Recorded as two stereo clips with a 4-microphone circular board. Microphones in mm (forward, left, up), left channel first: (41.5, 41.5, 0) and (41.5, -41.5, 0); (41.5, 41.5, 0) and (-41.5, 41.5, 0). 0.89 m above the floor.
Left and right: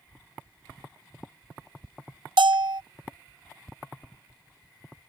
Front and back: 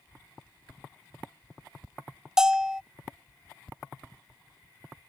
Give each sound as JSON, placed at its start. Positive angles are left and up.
{"t": 2.4, "sound": "a bell", "azimuth_deg": -100}